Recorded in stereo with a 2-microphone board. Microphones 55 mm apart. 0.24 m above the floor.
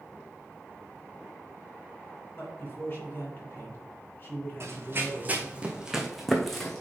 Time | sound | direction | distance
2.4 | a man speaking | 35° left (ahead or behind) | 3.5 m
4.6 | running footsteps | 50° right (ahead or behind) | 1.1 m